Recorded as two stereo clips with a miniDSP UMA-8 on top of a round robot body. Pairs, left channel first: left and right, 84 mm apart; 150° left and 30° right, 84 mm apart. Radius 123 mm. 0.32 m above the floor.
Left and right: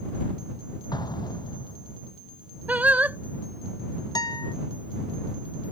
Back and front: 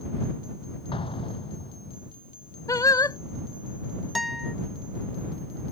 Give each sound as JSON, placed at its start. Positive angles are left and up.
{"t": 0.9, "sound": "an explosion", "azimuth_deg": 130}
{"t": 2.7, "sound": "singing", "azimuth_deg": -160}
{"t": 4.2, "sound": "a guitar", "azimuth_deg": 60}